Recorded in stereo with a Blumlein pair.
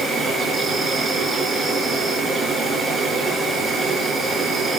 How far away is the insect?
About 6 m.